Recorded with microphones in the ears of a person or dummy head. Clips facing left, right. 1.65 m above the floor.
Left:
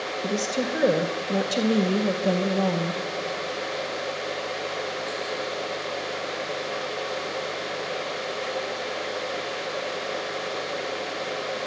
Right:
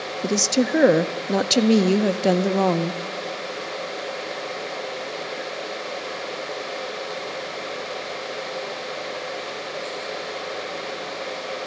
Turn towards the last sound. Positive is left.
turn(degrees=-80)